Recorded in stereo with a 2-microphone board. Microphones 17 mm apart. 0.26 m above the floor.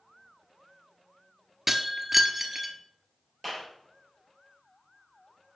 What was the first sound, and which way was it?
Breaking glass, 15° right (ahead or behind).